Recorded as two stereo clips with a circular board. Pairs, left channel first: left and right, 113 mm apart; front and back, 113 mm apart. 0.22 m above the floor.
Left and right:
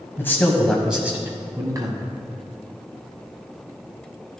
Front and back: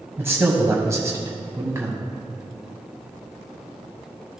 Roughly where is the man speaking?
Behind left.